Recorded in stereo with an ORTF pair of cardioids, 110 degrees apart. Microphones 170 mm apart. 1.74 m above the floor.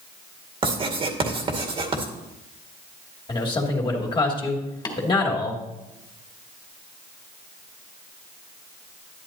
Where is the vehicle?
No vehicle in this recording.